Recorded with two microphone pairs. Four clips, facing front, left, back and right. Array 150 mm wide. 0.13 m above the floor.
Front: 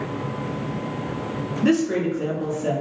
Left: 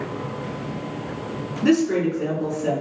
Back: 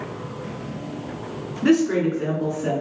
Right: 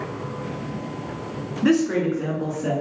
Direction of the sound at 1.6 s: 125° right.